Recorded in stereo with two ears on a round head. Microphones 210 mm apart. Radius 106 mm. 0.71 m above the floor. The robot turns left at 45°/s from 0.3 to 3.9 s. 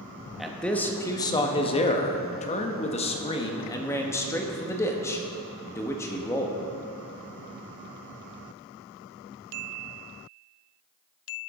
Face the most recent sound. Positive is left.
turn(degrees=10)  # may be behind; listen again after turning